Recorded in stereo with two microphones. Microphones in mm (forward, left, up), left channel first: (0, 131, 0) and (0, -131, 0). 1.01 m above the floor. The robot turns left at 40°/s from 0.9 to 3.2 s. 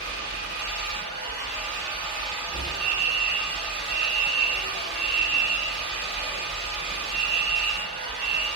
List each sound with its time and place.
0.0 s an engine running: 130° right, 1.5 m; by 8.6 s 140° left, 1.5 m
2.8 s a fire alarm: 50° right (ahead or behind), 1.8 m